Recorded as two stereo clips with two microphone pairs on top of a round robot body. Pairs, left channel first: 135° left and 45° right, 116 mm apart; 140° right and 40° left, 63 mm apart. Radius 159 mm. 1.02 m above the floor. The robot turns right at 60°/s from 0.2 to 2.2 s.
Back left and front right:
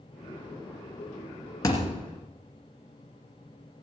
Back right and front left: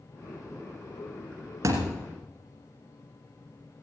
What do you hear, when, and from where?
1.6 s a thud: 75° left, 1.8 m; by 2.0 s 95° left, 1.8 m